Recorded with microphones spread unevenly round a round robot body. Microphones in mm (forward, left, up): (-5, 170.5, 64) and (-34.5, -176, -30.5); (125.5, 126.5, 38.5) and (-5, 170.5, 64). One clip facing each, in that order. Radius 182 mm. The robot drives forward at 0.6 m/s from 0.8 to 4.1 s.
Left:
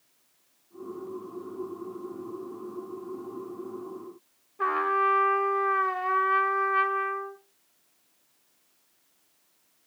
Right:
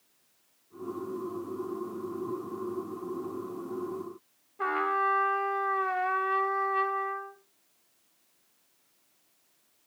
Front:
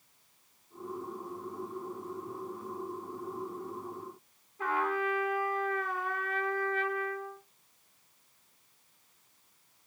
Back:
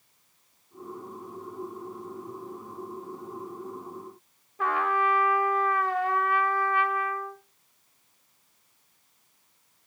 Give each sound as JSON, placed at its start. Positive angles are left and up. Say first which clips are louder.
{"t": 4.6, "sound": "a trumpet", "louder": "left 3 dB, back 5 dB", "azimuth_deg": 175, "distance_m": 1.1}